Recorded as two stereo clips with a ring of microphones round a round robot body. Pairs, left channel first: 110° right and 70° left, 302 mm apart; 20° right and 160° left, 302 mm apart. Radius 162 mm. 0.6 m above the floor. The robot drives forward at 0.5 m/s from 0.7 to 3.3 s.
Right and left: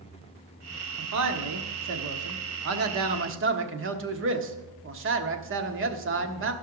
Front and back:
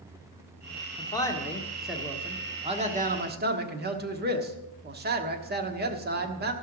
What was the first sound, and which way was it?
A man speaking, 50° left.